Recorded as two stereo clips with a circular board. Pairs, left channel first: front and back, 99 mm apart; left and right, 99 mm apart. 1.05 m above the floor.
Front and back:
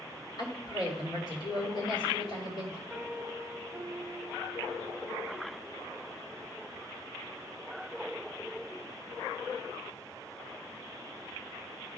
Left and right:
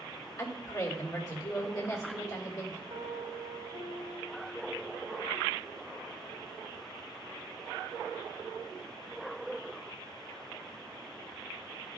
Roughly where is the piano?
Right.